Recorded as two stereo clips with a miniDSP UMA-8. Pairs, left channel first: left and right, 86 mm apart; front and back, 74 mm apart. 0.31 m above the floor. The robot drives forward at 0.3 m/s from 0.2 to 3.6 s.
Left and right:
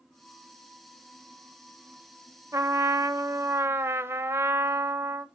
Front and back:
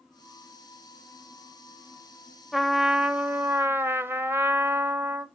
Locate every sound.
2.5 s a trumpet: 90° right, 0.6 m; by 5.3 s 135° right, 0.7 m